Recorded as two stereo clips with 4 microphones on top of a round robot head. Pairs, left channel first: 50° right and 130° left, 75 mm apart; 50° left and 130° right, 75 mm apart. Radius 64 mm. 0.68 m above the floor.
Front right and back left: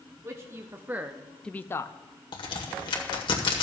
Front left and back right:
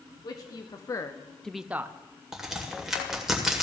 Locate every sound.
0.2 s a man speaking: 80° left, 1.5 m; by 2.0 s 80° right, 0.8 m
2.3 s a crack: 45° right, 2 m